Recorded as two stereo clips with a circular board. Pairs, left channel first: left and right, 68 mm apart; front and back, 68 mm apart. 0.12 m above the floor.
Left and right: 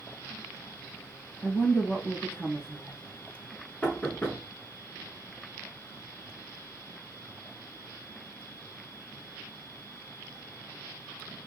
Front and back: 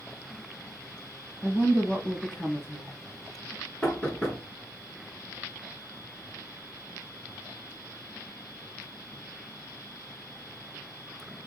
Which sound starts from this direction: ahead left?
A woman speaking, at 1.4 s.